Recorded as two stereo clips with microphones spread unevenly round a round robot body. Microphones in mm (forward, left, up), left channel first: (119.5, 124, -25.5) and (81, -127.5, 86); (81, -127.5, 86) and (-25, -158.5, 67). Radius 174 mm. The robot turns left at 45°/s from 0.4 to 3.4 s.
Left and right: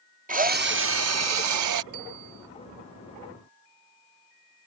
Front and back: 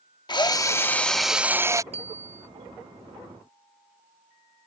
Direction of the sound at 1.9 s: 140° right.